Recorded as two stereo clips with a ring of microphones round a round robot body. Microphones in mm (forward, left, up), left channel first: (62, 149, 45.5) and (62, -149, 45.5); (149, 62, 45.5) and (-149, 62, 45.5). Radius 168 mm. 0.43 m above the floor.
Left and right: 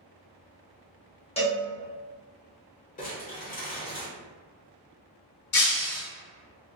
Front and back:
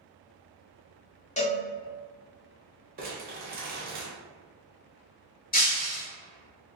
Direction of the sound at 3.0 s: 140° left.